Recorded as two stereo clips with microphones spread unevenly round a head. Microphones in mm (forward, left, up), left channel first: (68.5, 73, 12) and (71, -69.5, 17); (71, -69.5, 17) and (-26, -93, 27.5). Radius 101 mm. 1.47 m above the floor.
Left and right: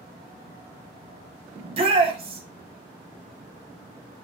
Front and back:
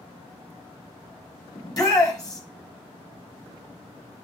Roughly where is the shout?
Ahead right.